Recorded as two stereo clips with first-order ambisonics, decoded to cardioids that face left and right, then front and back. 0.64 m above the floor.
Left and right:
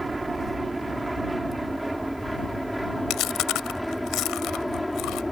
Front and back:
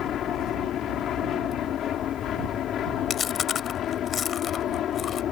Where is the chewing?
55° left.